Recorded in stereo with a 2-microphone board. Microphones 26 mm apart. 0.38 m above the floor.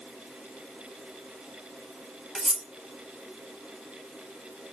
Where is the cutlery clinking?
25° right (ahead or behind), 0.7 m.